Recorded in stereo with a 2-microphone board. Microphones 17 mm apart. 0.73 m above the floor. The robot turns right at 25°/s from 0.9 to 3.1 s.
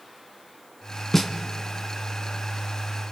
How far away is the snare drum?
About 1.8 m.